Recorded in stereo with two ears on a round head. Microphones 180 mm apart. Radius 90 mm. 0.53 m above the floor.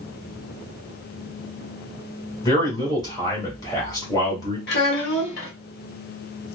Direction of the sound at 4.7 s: 55° left (ahead or behind).